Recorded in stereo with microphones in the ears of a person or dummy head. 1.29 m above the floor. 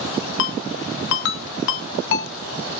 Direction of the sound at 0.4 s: 65° left (ahead or behind).